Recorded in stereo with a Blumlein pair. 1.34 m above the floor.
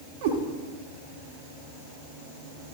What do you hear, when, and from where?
0.2 s a cat meowing: 50° right, 2.0 m